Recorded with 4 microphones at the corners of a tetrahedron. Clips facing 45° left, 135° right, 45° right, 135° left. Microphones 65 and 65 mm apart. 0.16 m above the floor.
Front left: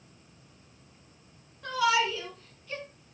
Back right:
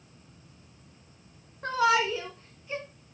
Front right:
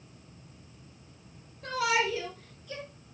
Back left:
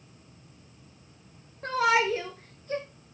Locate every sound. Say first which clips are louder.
1.6 s a shout: back right 2 dB, back left 4 dB; straight behind, 2.5 m; by 2.9 s 155° left, 1.7 m